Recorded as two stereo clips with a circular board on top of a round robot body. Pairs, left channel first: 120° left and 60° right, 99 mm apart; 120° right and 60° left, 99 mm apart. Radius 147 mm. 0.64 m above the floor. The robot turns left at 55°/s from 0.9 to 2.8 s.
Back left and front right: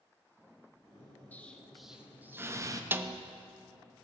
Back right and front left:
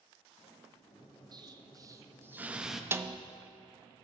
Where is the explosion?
55° left, 1.0 m; by 2.8 s 25° right, 1.0 m.